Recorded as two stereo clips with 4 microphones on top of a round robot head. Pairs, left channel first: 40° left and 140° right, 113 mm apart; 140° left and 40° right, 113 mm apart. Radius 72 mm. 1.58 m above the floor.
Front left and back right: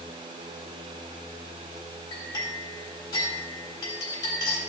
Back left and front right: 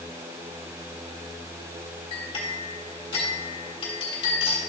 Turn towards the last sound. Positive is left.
turn(degrees=95)